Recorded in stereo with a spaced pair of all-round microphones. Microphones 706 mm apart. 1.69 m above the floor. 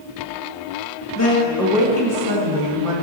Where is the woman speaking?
25° left (ahead or behind), 1.7 m; by 2.9 s 50° right (ahead or behind), 2.5 m.